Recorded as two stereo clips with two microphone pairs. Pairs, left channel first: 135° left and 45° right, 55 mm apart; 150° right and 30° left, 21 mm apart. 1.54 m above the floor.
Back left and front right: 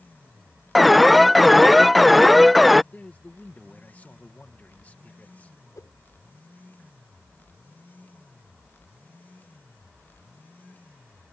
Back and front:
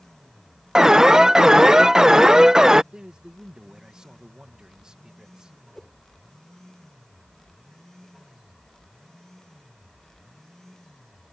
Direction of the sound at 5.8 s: 130° left.